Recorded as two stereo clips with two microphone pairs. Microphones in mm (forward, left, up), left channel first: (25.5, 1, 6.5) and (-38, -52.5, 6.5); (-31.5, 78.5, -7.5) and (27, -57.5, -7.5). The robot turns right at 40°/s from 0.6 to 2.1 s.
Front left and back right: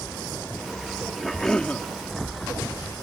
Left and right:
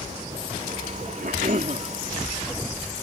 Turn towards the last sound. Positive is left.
turn(degrees=-15)